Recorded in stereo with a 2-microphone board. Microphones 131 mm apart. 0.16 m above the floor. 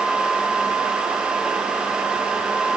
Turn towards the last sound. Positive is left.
No sound to turn to.